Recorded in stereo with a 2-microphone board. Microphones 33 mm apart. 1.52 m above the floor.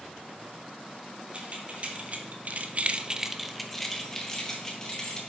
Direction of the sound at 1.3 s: 45° right (ahead or behind).